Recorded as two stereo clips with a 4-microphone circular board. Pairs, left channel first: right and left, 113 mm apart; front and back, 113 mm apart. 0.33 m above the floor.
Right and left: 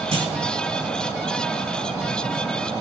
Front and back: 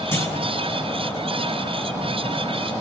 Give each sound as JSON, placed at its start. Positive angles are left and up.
{"t": 0.1, "sound": "a clunk", "azimuth_deg": 65, "distance_m": 3.0}